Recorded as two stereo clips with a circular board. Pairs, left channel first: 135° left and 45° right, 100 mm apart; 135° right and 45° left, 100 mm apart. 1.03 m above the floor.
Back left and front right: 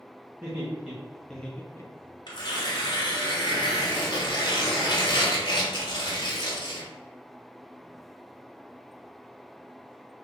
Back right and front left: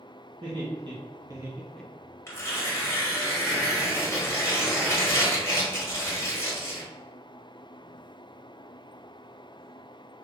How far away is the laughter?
About 1.5 m.